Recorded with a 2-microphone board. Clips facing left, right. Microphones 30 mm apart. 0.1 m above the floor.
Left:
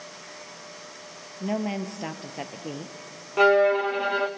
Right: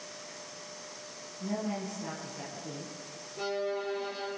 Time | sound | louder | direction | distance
1.4 | a woman speaking | left 6 dB | 50° left (ahead or behind) | 1.8 m
3.4 | a violin | left 15 dB | 65° left (ahead or behind) | 1.4 m